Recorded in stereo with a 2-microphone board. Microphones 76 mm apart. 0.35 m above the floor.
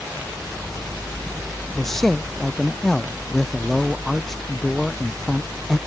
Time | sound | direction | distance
1.8 | a man speaking | 5° left (ahead or behind) | ?